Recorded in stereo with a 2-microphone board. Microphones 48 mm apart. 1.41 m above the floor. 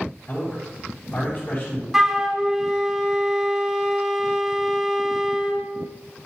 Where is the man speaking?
40° left (ahead or behind), 3.5 m.